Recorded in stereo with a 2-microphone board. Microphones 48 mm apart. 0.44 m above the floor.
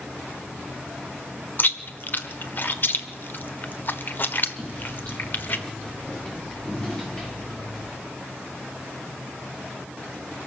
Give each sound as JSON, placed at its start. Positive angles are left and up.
{"t": 1.6, "sound": "chewing", "side_deg": 45, "distance_m": 1.3}
{"t": 4.6, "sound": "footsteps", "side_deg": 15, "distance_m": 6.5}